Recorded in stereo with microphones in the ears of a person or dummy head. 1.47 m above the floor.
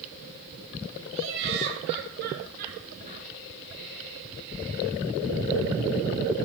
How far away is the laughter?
About 3.5 m.